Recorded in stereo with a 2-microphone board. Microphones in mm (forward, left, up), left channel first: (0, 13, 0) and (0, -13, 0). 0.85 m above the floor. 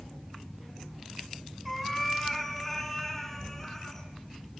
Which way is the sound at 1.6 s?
Centre (ahead or behind).